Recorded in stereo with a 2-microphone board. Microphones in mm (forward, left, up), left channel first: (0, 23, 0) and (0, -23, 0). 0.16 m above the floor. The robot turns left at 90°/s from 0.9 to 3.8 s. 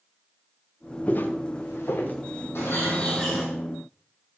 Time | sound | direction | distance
1.1 | footsteps | 30° left (ahead or behind) | 1.8 m
2.5 | a bird | 70° left | 4 m